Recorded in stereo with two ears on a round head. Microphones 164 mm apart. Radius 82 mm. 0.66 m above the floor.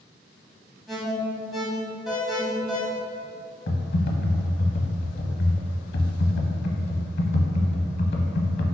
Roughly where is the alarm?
Centre.